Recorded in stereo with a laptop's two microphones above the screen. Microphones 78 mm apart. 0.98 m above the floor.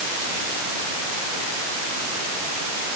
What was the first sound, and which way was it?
Only background noise.